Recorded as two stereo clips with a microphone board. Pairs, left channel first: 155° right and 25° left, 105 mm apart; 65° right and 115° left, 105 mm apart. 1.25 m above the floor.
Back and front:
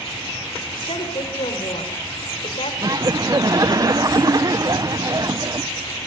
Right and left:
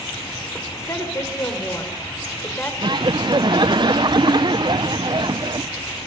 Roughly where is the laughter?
Left.